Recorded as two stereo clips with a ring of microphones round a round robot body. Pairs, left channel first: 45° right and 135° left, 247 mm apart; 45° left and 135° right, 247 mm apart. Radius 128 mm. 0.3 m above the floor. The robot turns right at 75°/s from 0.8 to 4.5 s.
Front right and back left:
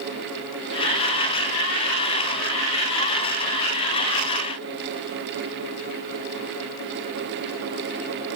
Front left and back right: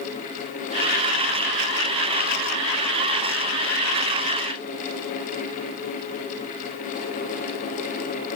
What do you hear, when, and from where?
Only background noise.